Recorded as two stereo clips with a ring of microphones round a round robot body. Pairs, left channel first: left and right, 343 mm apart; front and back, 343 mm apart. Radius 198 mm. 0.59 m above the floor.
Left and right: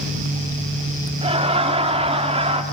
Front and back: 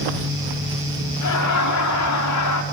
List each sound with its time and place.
1.2 s laughter: 20° right, 1.7 m